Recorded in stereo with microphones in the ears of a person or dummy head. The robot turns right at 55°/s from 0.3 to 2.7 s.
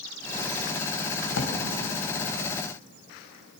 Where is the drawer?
70° left (ahead or behind), 3 m.